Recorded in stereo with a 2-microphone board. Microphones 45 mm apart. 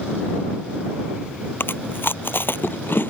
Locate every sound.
1.6 s chewing: 55° left (ahead or behind)